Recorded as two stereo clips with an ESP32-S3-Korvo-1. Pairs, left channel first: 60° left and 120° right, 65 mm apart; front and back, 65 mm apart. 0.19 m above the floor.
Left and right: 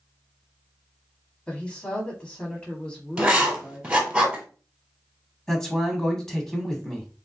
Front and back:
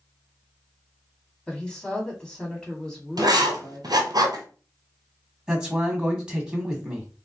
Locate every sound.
1.5 s a woman speaking: 55° left, 1.1 m
3.2 s writing: 165° left, 1.2 m
5.5 s a man speaking: 125° left, 1.0 m